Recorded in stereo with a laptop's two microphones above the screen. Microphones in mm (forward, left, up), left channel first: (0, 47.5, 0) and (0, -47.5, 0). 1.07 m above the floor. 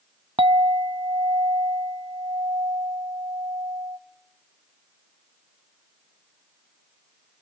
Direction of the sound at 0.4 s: 65° right (ahead or behind).